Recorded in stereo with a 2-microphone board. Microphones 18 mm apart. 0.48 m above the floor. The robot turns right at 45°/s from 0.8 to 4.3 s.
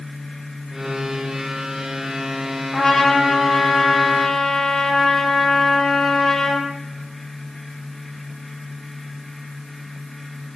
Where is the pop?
No pop in this recording.